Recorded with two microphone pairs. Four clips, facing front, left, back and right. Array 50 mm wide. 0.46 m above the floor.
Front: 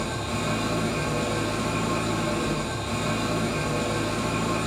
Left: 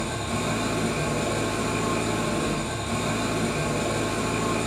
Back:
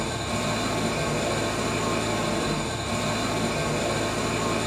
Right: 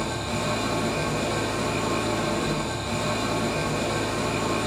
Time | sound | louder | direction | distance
0.0 | an engine running | even, back 1 dB | 165° right | 1.0 m